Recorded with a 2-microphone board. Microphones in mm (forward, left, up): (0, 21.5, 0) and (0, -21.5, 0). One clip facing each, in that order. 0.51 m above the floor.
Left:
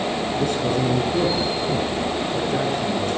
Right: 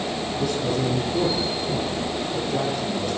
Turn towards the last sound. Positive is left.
turn(degrees=45)  # may be behind; listen again after turning